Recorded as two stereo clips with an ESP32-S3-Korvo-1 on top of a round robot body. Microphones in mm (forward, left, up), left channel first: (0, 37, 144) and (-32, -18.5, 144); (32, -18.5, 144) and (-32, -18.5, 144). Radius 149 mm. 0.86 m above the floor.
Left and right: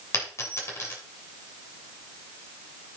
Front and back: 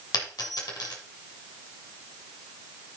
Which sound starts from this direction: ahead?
A dropped coin, at 0.1 s.